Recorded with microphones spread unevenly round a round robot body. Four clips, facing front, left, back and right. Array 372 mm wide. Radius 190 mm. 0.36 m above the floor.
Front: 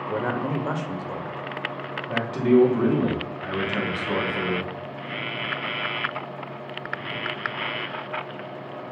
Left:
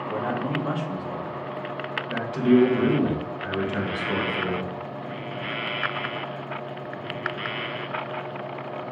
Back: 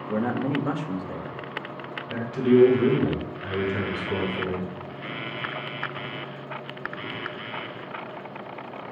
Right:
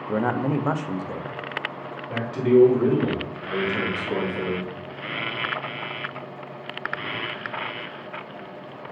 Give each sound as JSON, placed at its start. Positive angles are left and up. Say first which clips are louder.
{"t": 0.1, "sound": "a man speaking", "louder": "right 5 dB, back 1 dB", "azimuth_deg": -80, "distance_m": 0.8}
{"t": 2.1, "sound": "a man speaking", "louder": "right 1 dB, front 1 dB", "azimuth_deg": 5, "distance_m": 3.0}